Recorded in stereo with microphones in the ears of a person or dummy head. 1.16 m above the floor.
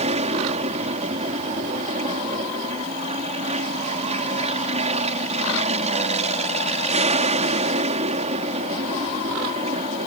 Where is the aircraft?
30° right (ahead or behind).